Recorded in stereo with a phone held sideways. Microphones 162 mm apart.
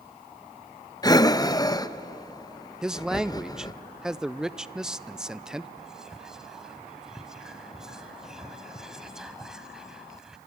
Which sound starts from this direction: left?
Breathing, at 1.0 s.